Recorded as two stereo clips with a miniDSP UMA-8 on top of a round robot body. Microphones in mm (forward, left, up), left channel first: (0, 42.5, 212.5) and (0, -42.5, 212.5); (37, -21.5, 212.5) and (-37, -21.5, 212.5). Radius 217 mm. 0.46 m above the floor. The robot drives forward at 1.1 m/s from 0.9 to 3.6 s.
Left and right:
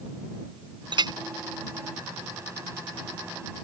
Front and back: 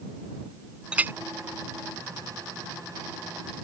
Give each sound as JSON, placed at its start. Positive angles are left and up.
{"t": 0.9, "sound": "a clink", "azimuth_deg": -100}